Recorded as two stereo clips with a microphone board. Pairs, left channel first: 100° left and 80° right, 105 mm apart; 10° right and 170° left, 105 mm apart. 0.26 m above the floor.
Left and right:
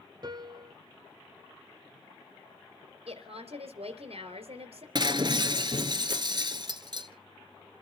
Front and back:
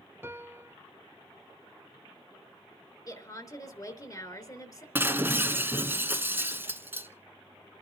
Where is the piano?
120° right, 0.7 m.